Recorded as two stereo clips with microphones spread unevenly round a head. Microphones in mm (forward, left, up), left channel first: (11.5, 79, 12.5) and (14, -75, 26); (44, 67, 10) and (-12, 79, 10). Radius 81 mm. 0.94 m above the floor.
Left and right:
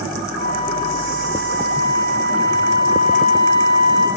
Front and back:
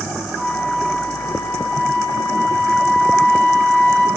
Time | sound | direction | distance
0.4 | a flute | 50° left | 3.5 m